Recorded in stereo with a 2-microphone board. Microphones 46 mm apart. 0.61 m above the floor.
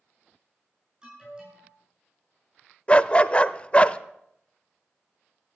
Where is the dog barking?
25° left (ahead or behind), 0.5 m.